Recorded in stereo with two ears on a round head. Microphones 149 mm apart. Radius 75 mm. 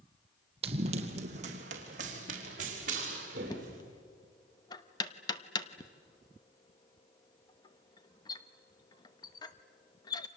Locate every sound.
0.6 s running footsteps: 35° right (ahead or behind), 2 m; by 3.8 s 50° right (ahead or behind), 6 m
3.5 s knocking: 25° left (ahead or behind), 1.0 m